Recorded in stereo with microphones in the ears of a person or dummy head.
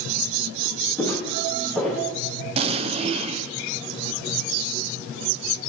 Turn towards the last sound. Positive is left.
turn(degrees=-40)  # may be behind; listen again after turning